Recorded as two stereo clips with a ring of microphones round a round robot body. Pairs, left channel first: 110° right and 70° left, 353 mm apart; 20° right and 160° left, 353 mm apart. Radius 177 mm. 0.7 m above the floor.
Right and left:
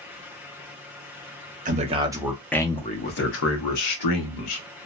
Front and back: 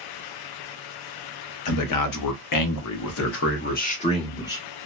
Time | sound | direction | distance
1.6 | a man speaking | straight ahead | 1.0 m